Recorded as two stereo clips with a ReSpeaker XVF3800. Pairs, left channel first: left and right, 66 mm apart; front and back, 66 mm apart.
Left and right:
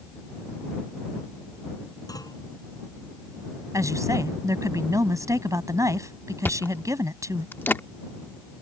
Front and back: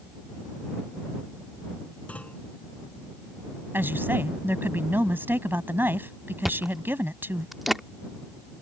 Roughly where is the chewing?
Left.